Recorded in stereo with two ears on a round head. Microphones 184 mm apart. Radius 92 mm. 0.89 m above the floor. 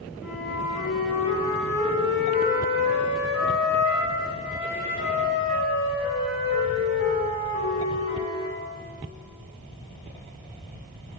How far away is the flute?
About 5 m.